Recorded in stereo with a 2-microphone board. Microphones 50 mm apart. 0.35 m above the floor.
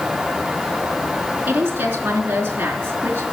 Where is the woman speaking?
40° right (ahead or behind), 4 m.